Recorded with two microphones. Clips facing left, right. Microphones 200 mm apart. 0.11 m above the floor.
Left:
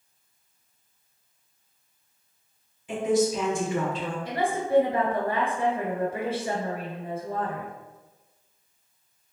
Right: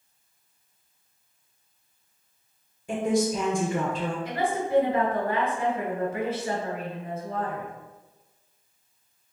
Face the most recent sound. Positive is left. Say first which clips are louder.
# left 2 dB
turn(degrees=30)  # may be behind; listen again after turning